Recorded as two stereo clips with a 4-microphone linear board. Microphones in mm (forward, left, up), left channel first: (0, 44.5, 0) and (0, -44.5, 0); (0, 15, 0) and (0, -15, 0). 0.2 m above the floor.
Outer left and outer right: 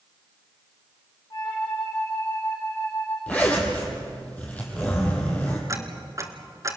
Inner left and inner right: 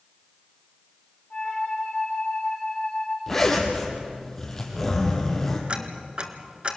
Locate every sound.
1.3 s a flute: 45° left (ahead or behind), 6 m
3.3 s a zipper: 15° left (ahead or behind), 4.5 m
5.7 s ticking: 35° right (ahead or behind), 1.6 m